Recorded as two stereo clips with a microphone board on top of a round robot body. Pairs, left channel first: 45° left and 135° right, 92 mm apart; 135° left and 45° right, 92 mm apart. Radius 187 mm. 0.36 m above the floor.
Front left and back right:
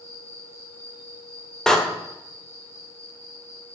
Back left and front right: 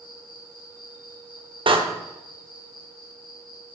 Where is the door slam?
40° right, 2.0 m.